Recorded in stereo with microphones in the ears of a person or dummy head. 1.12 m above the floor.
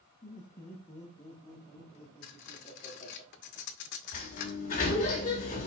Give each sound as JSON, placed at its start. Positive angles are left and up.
{"t": 0.2, "sound": "laughter", "side_deg": 15, "distance_m": 4.0}
{"t": 2.2, "sound": "cutlery clinking", "side_deg": 65, "distance_m": 0.9}
{"t": 4.1, "sound": "a sliding door", "side_deg": 45, "distance_m": 2.0}